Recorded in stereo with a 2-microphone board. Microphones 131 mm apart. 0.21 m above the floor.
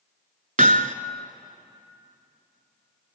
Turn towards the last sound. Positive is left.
turn(degrees=-70)  # may be behind; listen again after turning